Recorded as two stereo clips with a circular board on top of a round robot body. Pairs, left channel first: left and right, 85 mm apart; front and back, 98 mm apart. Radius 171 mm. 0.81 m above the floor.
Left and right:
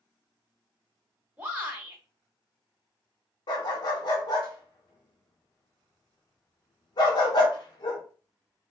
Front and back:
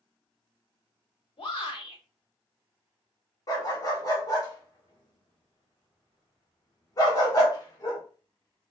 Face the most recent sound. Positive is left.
turn(degrees=55)